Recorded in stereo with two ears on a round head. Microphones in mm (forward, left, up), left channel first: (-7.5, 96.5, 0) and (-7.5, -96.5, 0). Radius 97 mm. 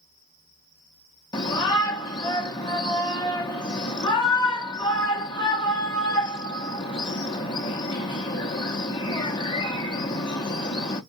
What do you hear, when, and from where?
1.3 s a shout: 20° left (ahead or behind), 0.8 m